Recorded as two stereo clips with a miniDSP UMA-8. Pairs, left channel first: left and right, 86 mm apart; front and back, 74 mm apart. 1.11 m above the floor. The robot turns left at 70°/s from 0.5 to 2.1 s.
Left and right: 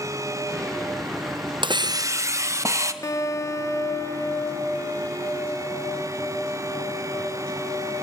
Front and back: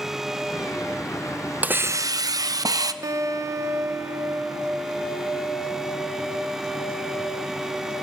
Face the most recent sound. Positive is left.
turn(degrees=140)